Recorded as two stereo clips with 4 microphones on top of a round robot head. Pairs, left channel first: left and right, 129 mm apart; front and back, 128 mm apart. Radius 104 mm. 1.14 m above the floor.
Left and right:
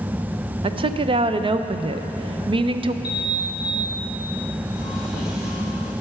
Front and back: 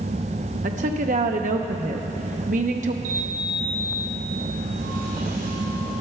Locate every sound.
0.6 s a woman speaking: 140° right, 0.6 m
3.0 s a sliding door: 175° right, 3.5 m